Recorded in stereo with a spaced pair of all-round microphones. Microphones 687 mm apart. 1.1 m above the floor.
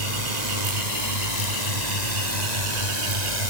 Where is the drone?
75° right (ahead or behind).